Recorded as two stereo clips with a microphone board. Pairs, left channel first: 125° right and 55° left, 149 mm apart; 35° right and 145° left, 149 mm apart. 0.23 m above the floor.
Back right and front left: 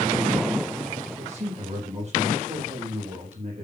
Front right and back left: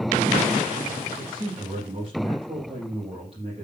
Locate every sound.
1.2 s a man speaking: 95° left, 6.5 m